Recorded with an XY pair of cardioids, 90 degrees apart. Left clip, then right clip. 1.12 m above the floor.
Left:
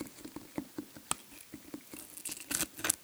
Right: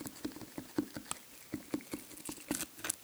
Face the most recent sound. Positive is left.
No sound to turn to.